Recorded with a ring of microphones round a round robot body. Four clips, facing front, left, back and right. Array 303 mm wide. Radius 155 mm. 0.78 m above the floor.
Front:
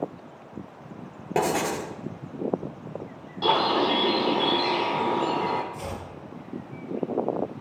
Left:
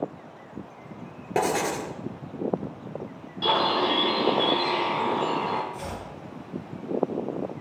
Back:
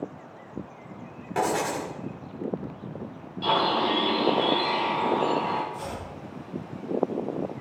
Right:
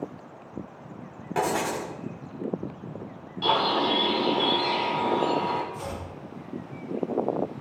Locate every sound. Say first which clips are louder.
1.4 s writing: left 1 dB, front 1 dB; 45° left, 2 m
3.4 s a bird: even, front 2 dB; 20° left, 3 m
5.7 s chopping: even, even; 40° left, 6 m